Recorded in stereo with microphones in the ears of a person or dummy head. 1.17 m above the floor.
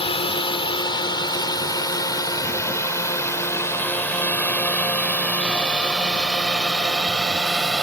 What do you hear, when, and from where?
0.0 s a drone: 30° left (ahead or behind); by 7.8 s centre (ahead or behind)